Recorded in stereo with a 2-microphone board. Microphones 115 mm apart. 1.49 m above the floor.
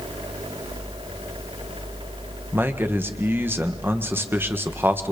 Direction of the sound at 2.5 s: 20° right (ahead or behind).